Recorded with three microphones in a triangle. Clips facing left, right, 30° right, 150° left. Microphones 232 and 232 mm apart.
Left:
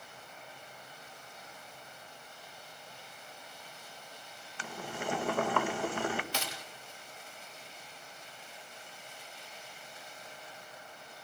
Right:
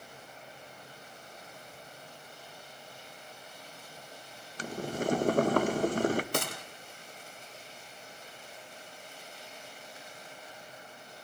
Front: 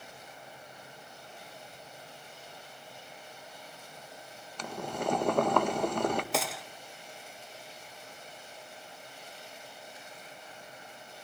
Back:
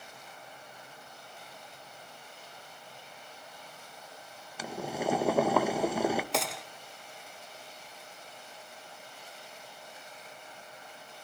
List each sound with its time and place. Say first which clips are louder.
4.6 s boiling: right 7 dB, back 1 dB; 125° right, 0.7 m
6.3 s a gunshot: right 7 dB, even; 120° right, 0.7 m